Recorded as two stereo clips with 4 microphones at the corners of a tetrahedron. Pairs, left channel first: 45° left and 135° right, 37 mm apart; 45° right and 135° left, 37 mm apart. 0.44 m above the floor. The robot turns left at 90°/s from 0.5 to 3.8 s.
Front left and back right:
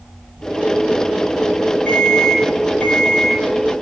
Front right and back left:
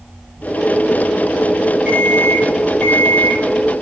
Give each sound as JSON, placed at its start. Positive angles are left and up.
{"t": 1.9, "sound": "an alarm clock", "azimuth_deg": 25, "distance_m": 6.5}